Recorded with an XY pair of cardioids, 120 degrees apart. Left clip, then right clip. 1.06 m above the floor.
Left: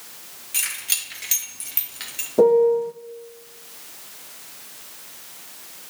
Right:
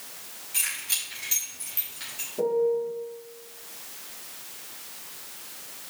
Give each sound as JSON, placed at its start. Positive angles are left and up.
{"t": 0.5, "sound": "keys jangling", "azimuth_deg": 40, "distance_m": 2.5}
{"t": 2.4, "sound": "a piano", "azimuth_deg": 70, "distance_m": 0.5}